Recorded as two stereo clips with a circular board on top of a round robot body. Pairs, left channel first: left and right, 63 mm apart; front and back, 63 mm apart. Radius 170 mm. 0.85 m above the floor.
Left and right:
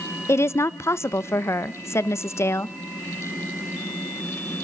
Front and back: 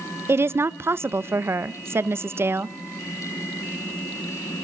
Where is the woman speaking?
135° left, 0.8 m.